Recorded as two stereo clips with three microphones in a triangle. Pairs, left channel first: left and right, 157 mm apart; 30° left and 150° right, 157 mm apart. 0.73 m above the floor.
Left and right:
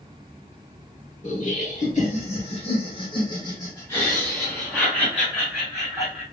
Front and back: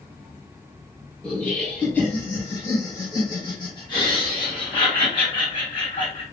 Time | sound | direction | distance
1.2 | laughter | 110° left | 1.7 m